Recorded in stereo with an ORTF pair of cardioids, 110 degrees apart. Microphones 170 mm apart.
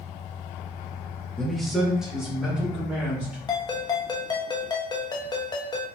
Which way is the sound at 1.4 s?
5° left.